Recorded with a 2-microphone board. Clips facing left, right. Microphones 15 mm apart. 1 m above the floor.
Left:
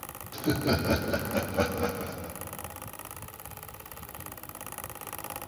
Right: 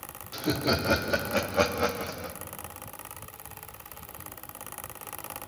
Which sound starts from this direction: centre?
Laughter, at 0.3 s.